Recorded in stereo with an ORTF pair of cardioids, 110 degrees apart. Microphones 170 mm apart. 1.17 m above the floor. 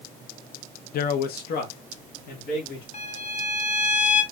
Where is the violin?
40° left, 1.2 m.